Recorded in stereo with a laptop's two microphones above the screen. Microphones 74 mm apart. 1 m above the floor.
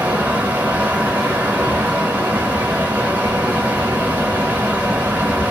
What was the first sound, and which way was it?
A fan, 20° right (ahead or behind).